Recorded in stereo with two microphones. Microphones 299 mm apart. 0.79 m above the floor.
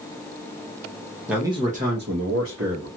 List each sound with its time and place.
1.3 s a man speaking: centre (ahead or behind), 0.8 m; by 2.9 s 60° right (ahead or behind), 1.3 m